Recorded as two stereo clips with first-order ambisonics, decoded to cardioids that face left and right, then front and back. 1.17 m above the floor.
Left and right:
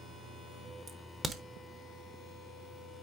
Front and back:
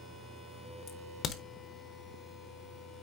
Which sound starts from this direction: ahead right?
A crack, at 0.9 s.